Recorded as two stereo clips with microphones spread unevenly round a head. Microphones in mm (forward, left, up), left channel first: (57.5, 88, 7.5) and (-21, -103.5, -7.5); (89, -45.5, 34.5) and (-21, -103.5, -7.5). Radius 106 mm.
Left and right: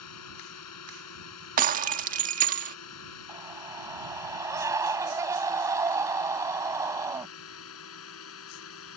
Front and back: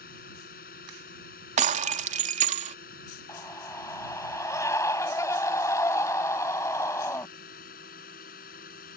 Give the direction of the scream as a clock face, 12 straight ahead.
1 o'clock.